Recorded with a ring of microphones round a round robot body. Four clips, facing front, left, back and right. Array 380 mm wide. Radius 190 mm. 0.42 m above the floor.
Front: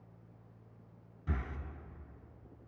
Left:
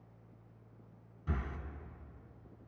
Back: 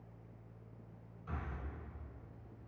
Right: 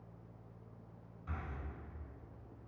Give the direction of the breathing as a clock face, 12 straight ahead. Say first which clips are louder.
Left 6 dB, front 4 dB; 11 o'clock.